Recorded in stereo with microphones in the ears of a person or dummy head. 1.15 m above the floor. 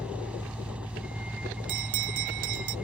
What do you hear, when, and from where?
0.0 s a vehicle: 10° right (ahead or behind)
1.7 s a bell: 60° right (ahead or behind)